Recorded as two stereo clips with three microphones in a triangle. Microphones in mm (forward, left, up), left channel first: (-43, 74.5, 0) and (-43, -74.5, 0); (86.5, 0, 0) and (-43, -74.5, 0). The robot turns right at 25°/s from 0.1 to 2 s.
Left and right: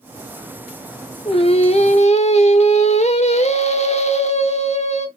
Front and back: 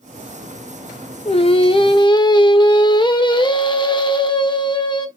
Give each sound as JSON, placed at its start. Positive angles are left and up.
{"t": 1.2, "sound": "singing", "azimuth_deg": 55, "distance_m": 0.7}